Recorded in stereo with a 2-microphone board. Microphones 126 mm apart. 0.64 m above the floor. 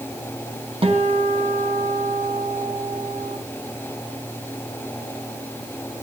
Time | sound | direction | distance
0.8 | a guitar | 45° right (ahead or behind) | 4 m